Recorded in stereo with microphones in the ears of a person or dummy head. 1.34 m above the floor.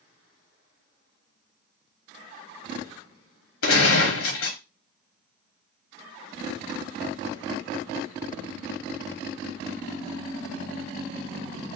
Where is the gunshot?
65° left (ahead or behind), 1.1 m.